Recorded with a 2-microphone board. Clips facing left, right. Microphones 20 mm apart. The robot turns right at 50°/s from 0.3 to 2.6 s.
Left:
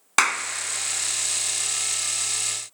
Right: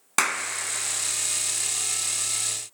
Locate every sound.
0.2 s a clap: 20° left (ahead or behind), 1.2 m